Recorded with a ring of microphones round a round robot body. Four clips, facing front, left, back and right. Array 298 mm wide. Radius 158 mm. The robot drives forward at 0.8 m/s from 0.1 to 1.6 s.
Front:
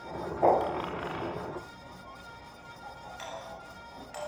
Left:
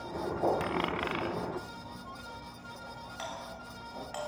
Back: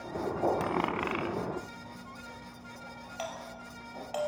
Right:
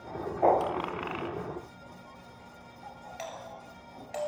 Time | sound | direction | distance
0.6 | a dropped coin | 165° left | 1.1 m
3.2 | a doorbell | 145° right | 5.5 m